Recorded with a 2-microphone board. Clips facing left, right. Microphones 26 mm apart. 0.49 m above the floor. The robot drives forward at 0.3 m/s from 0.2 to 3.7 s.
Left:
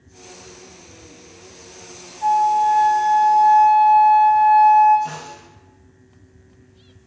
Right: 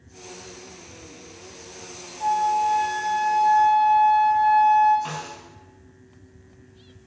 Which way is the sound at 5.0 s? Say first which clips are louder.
Left 1 dB; 70° right (ahead or behind).